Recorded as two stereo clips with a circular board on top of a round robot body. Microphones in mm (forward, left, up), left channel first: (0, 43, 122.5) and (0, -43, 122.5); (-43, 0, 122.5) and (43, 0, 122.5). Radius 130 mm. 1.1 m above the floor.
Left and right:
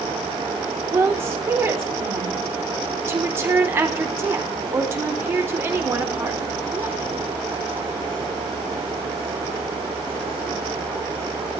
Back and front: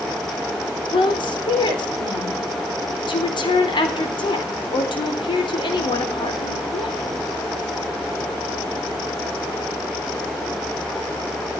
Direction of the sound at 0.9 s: 150° right.